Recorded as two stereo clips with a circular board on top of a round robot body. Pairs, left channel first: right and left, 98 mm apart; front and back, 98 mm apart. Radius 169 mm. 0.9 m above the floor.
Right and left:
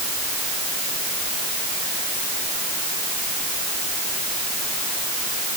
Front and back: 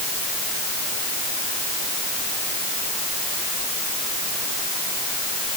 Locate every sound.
Only background noise.